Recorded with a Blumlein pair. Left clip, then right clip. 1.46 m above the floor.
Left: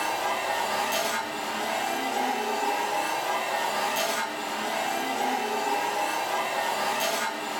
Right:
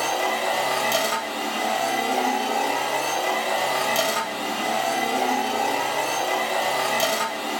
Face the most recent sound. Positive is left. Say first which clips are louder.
# right 4 dB
turn(degrees=-40)